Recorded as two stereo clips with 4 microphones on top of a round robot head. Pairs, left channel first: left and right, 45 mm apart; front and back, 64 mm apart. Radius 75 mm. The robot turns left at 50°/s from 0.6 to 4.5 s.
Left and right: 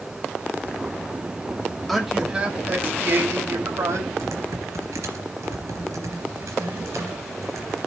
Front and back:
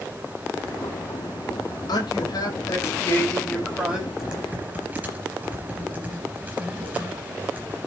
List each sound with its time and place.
1.9 s a man speaking: straight ahead, 4.5 m; by 4.1 s 110° right, 4.5 m
4.2 s typing on a keyboard: 95° right, 3.5 m; by 7.9 s 110° right, 3.5 m